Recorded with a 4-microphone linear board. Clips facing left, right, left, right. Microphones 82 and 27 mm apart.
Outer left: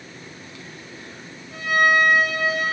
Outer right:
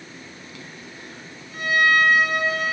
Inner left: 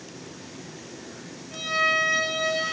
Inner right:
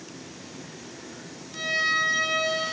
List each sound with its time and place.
1.5 s a violin: 45° left (ahead or behind), 3 m